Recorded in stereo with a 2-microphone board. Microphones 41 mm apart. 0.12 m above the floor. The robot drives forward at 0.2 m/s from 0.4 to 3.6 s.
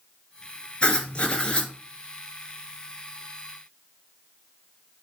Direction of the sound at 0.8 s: 25° left (ahead or behind).